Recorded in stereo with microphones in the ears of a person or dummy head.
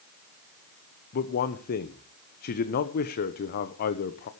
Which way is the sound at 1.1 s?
55° left (ahead or behind).